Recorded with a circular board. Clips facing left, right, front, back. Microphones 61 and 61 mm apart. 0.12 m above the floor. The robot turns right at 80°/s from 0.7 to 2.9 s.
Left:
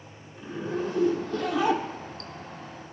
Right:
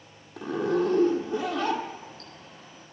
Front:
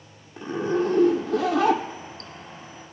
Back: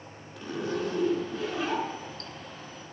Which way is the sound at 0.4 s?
65° right.